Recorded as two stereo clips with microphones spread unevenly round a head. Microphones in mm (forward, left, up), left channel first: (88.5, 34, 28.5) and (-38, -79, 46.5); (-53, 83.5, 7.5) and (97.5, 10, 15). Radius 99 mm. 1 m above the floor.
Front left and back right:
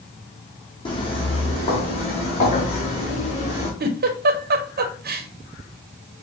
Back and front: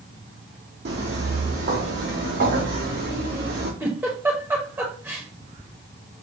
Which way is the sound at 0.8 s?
20° right.